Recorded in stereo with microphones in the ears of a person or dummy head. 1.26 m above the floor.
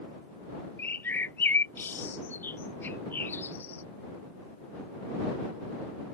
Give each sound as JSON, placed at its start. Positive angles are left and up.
{"t": 0.8, "sound": "a bird", "side_deg": 10}